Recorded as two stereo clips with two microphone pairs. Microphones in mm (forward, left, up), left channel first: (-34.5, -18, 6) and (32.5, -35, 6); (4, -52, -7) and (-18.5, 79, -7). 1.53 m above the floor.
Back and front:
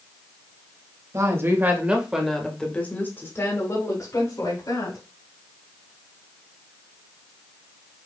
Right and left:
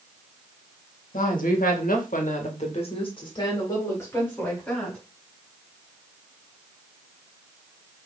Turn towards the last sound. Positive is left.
turn(degrees=-160)